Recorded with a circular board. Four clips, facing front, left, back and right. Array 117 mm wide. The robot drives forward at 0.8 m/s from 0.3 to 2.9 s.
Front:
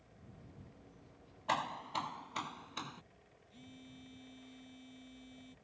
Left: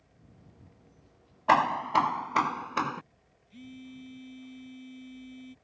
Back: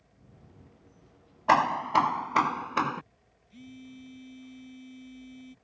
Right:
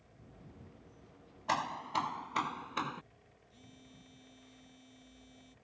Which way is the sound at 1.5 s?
140° left.